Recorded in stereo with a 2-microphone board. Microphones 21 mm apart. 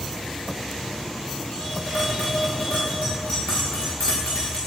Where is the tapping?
70° left (ahead or behind), 5.5 m.